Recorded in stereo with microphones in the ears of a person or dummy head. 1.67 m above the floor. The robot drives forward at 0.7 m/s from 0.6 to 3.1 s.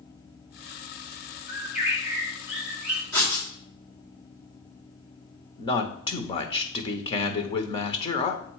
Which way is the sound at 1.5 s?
10° right (ahead or behind).